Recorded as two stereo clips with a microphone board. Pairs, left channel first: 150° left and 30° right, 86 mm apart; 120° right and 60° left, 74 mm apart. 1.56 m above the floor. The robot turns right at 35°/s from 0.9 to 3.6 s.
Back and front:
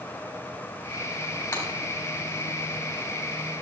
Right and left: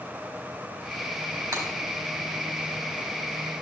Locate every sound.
1.5 s breaking glass: 90° left, 4 m; by 1.6 s 95° left, 4 m